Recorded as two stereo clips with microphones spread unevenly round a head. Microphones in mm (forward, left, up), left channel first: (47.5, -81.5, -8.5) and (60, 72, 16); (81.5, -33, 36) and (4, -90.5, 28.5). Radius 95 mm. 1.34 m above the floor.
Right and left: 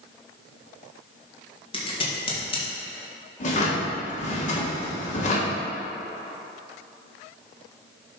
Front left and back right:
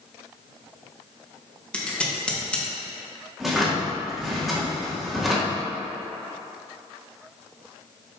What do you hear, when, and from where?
1.7 s scissors: 45° right, 1.7 m
3.4 s a drawer: 55° right, 1.6 m